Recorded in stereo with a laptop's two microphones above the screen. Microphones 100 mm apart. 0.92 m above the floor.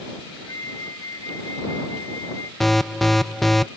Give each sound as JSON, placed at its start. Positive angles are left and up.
{"t": 0.5, "sound": "a flute", "side_deg": 35}
{"t": 2.6, "sound": "an alarm", "side_deg": 0}